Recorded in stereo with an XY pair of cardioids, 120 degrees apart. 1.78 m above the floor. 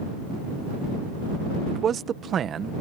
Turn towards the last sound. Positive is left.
turn(degrees=-45)